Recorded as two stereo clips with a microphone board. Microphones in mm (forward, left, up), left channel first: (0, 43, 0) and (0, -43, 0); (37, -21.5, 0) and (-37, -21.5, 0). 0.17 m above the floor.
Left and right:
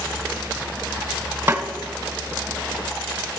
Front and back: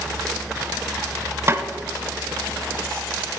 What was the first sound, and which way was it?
A snare drum, 145° right.